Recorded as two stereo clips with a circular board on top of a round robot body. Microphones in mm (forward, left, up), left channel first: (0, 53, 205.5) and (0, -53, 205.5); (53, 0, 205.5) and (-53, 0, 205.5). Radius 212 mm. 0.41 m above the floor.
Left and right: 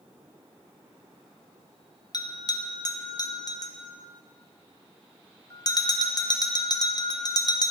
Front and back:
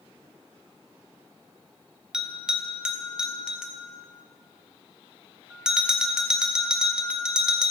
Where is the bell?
100° left, 1.0 m.